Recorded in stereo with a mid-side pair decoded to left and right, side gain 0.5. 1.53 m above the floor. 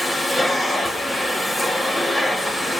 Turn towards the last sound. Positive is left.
turn(degrees=15)